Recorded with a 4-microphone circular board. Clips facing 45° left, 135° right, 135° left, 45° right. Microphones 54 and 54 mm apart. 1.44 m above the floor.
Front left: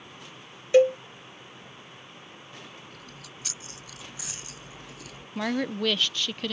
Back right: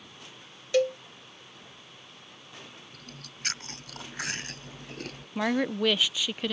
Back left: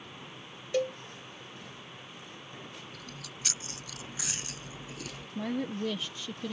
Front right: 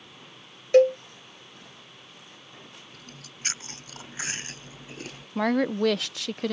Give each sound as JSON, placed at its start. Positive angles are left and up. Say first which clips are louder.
{"t": 0.7, "sound": "a cowbell", "louder": "front left 7 dB, front right 13 dB", "azimuth_deg": -20}
{"t": 2.9, "sound": "chewing", "louder": "front left 2 dB, back left 2 dB", "azimuth_deg": -95}
{"t": 5.3, "sound": "a woman speaking", "louder": "back right 1 dB, front right 10 dB", "azimuth_deg": -55}